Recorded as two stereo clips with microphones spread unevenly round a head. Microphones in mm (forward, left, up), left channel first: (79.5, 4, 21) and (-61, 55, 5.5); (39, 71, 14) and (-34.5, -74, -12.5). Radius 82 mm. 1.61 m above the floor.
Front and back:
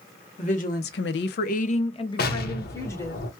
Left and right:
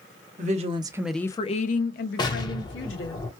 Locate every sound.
0.4 s a woman speaking: 75° right, 0.8 m; by 3.2 s 55° left, 1.7 m
2.2 s an explosion: straight ahead, 0.9 m